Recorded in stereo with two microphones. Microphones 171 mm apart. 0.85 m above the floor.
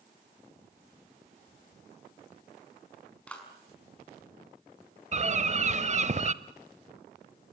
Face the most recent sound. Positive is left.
turn(degrees=-40)  # may be behind; listen again after turning